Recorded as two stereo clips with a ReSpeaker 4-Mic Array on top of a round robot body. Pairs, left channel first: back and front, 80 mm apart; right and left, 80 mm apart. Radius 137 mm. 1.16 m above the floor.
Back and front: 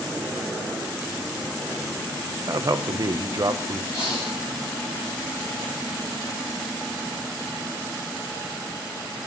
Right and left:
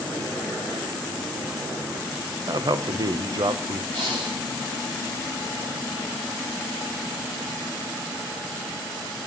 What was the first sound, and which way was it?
A man speaking, 50° left.